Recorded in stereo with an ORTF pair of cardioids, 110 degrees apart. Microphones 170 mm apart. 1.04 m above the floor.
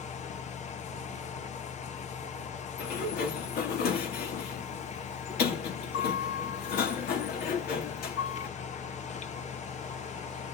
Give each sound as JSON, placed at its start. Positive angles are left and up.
{"t": 0.0, "sound": "a fan", "azimuth_deg": 45, "distance_m": 1.0}
{"t": 2.8, "sound": "a sliding door", "azimuth_deg": 65, "distance_m": 2.5}